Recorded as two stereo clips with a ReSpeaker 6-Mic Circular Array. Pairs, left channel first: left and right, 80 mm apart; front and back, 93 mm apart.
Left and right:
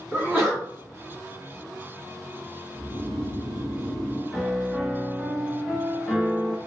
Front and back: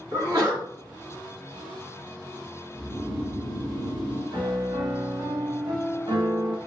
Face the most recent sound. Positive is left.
turn(degrees=180)